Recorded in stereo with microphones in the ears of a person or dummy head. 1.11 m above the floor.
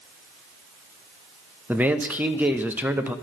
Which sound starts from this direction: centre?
A man speaking, at 1.7 s.